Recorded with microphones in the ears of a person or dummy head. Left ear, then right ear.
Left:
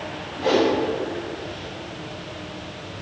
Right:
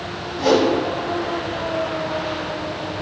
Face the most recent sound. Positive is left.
turn(degrees=-80)